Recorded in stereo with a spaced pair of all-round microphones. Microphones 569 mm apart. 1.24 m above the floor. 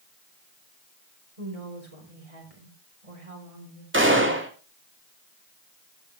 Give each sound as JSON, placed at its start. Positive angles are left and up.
{"t": 1.4, "sound": "a woman speaking", "side_deg": -80, "distance_m": 4.5}
{"t": 3.9, "sound": "a gunshot", "side_deg": -20, "distance_m": 2.5}